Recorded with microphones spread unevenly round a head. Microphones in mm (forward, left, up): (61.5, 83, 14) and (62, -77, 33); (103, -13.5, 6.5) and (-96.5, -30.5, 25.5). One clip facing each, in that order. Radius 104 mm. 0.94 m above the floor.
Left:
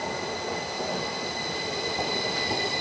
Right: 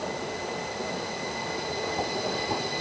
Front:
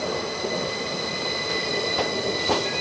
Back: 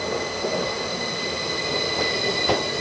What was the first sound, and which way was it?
Only background noise.